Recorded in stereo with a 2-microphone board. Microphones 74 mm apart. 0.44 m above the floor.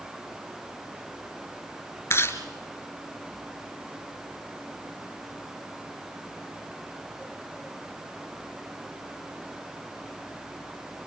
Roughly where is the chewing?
Left.